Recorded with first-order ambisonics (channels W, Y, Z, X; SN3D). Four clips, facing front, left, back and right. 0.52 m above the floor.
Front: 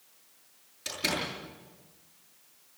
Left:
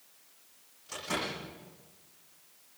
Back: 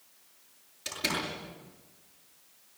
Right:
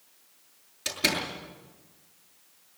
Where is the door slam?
85° right, 7.5 m.